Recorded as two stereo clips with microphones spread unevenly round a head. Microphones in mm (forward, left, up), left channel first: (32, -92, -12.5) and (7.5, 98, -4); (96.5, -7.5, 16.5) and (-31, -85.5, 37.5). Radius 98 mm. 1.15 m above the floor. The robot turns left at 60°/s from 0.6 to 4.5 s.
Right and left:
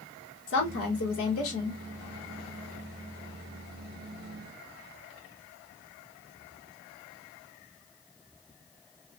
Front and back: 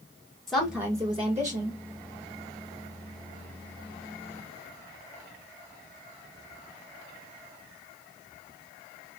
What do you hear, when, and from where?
0.5 s a woman speaking: 55° right, 1.2 m; by 1.8 s 130° right, 1.2 m